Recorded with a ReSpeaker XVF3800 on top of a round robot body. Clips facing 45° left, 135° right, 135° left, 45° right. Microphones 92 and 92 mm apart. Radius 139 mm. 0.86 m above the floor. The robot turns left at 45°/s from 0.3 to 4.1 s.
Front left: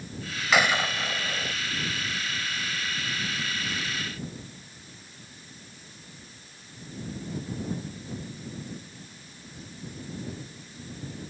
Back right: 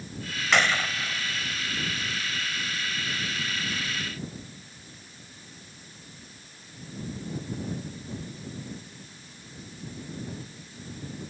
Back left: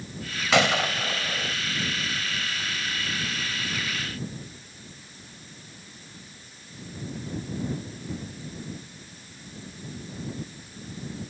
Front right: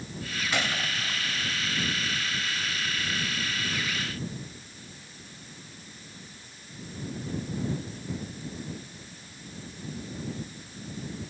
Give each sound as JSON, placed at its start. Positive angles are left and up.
{"t": 0.5, "sound": "a gunshot", "azimuth_deg": 130}